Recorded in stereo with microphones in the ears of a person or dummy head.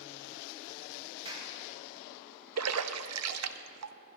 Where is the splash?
75° right (ahead or behind), 0.6 m.